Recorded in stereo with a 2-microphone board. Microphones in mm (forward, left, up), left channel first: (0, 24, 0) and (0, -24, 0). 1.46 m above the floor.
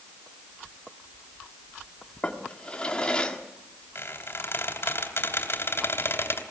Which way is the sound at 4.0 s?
55° left (ahead or behind).